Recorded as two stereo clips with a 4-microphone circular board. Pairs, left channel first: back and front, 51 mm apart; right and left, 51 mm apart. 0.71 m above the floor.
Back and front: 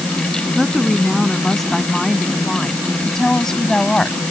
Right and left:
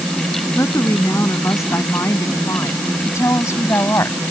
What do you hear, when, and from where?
0.6 s a woman speaking: 90° right; by 4.2 s 105° right